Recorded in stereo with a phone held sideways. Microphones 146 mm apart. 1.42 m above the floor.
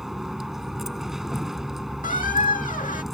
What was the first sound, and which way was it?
A vehicle, centre (ahead or behind).